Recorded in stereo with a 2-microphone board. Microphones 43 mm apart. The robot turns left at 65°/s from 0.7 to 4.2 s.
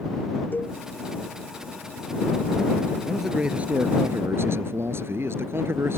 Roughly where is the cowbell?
Left.